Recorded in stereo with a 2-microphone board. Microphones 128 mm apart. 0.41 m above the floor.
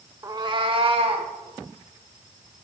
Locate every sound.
0.2 s a cat meowing: 25° right (ahead or behind), 0.7 m; by 1.3 s 50° right (ahead or behind), 1.9 m